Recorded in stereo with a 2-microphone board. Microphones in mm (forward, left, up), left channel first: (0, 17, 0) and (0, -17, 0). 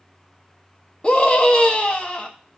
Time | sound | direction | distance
1.0 | a scream | 35° left (ahead or behind) | 1.5 m